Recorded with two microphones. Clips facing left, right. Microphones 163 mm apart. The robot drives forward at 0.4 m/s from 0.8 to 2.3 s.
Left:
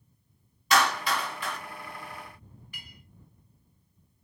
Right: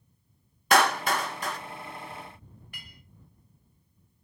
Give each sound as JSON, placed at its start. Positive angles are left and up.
{"t": 0.7, "sound": "a clap", "side_deg": -55, "distance_m": 0.5}
{"t": 2.7, "sound": "a clink", "side_deg": -50, "distance_m": 0.9}